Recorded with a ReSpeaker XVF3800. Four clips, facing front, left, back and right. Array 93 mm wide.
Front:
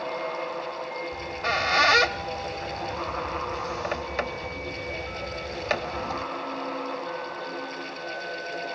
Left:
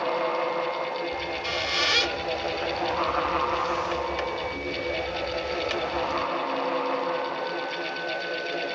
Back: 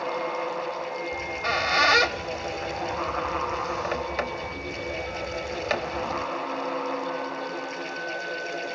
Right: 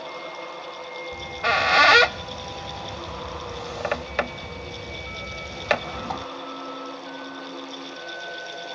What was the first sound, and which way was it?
A squeak, 90° right.